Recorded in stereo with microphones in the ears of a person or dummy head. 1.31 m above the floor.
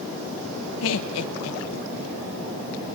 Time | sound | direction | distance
0.8 | laughter | 75° left (ahead or behind) | 0.9 m